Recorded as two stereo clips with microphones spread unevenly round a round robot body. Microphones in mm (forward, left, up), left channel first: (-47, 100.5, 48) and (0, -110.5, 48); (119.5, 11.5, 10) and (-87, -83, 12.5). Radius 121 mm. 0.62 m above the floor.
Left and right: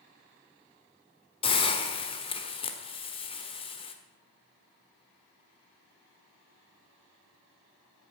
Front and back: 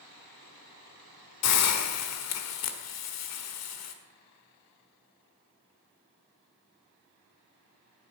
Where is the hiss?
35° left, 1.5 m.